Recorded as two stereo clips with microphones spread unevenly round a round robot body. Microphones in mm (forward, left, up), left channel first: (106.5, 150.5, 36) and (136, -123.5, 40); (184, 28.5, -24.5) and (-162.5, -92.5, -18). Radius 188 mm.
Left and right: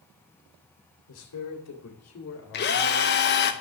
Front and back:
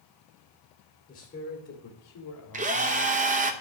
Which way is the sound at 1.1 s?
95° left.